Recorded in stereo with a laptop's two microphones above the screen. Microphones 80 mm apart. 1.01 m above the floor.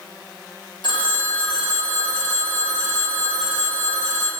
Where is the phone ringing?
70° left (ahead or behind), 0.9 m.